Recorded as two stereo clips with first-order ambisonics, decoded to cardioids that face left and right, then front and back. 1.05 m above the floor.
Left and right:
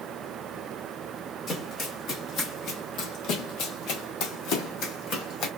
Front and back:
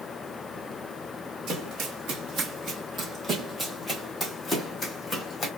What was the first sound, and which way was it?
Running footsteps, 145° left.